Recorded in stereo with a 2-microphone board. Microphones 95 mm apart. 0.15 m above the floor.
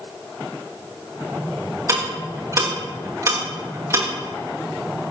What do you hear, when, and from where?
1.9 s ticking: 35° right (ahead or behind), 6.5 m